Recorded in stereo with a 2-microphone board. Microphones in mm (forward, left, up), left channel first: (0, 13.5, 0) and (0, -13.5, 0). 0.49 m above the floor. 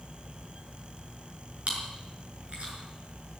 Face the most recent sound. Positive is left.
turn(degrees=-50)  # may be behind; listen again after turning